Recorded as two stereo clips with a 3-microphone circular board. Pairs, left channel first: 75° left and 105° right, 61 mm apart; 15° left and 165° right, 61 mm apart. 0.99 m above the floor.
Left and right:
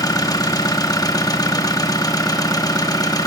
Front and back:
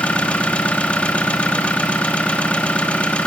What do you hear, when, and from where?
0.0 s an engine running: 85° left, 1.2 m